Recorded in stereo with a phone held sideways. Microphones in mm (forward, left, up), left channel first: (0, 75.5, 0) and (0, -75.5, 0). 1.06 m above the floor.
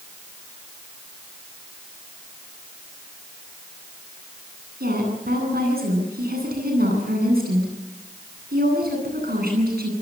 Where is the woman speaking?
90° right, 10 m.